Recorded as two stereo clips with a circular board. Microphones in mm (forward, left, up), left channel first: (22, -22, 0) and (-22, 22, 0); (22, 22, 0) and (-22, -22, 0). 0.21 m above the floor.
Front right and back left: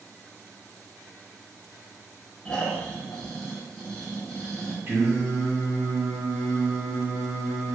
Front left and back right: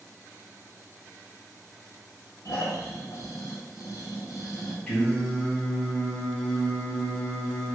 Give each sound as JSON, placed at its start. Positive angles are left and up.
{"t": 2.5, "sound": "snoring", "azimuth_deg": 35, "distance_m": 0.9}
{"t": 4.9, "sound": "singing", "azimuth_deg": 115, "distance_m": 1.9}